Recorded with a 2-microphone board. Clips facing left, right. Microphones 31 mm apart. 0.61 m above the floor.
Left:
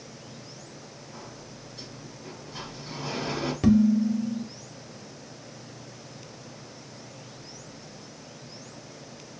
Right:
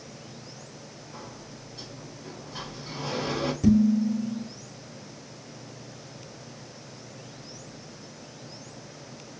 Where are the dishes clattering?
45° left (ahead or behind), 0.9 m.